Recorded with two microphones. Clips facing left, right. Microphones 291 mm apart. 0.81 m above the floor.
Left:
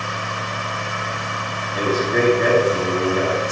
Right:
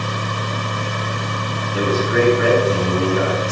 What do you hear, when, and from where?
1.7 s a man speaking: 85° right, 8.5 m